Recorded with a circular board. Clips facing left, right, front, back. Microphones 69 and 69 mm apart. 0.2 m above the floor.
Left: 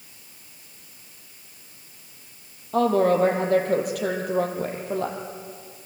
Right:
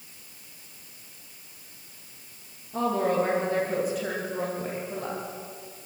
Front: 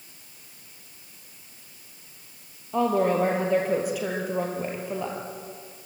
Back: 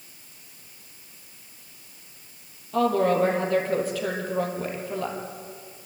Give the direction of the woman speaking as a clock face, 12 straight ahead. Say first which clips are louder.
Left 6 dB, back 1 dB; 10 o'clock.